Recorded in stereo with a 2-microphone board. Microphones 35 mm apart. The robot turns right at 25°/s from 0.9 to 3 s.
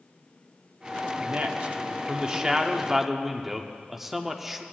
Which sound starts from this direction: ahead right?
A man speaking, at 1.2 s.